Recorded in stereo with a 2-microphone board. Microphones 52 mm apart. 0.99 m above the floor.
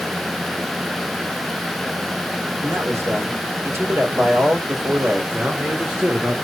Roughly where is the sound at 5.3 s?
Right.